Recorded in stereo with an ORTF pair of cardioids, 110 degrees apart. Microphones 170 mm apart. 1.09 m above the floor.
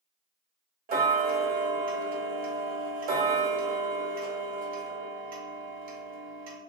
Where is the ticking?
60° right, 0.7 m.